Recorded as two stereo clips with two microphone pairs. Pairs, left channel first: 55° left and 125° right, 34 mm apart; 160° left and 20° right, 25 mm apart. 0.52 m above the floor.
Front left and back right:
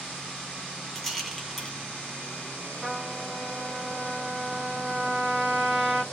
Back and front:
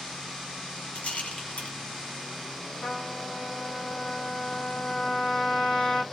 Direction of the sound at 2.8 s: 175° left.